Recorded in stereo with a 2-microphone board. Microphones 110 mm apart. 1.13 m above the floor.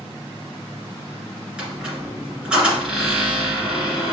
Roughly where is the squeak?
Centre.